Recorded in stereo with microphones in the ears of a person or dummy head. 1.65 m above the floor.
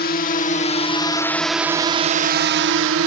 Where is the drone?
45° left (ahead or behind); by 3.1 s 60° right (ahead or behind).